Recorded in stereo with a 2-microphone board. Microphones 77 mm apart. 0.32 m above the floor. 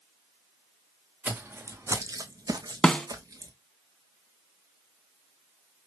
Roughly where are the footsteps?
Centre.